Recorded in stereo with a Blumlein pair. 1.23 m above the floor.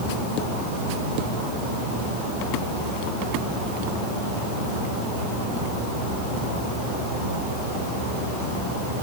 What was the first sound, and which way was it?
Only background noise.